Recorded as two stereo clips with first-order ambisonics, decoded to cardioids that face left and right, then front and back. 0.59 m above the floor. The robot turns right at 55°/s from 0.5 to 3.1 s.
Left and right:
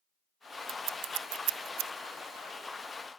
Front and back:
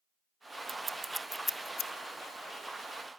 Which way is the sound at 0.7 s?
120° right.